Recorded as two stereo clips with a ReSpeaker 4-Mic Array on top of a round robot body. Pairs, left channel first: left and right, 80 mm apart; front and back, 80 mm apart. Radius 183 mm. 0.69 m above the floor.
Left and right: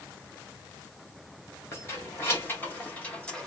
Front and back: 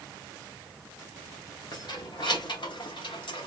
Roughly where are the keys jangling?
Ahead left.